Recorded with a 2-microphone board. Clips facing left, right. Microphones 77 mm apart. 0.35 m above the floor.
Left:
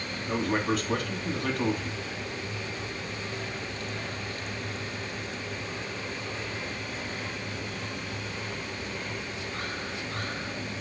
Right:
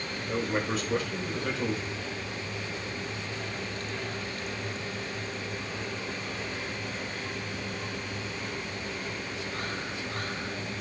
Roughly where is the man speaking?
Left.